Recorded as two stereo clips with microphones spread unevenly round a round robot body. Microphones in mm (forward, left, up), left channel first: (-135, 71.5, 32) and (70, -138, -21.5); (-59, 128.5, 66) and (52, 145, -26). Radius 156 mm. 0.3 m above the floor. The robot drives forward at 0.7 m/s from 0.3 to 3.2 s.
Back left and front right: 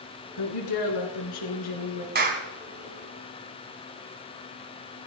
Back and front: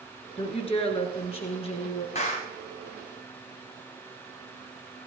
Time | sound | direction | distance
0.4 | a woman speaking | 135° left | 3.5 m
2.1 | a clap | 95° right | 2.0 m